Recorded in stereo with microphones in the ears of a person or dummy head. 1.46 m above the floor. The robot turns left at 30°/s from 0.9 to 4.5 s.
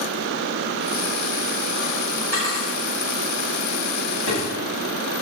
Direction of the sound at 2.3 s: 25° left (ahead or behind).